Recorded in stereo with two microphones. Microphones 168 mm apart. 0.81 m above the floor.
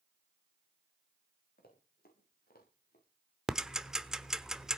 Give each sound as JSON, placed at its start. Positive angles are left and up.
{"t": 1.6, "sound": "running footsteps", "side_deg": 65, "distance_m": 8.5}
{"t": 3.5, "sound": "ticking", "side_deg": -5, "distance_m": 1.0}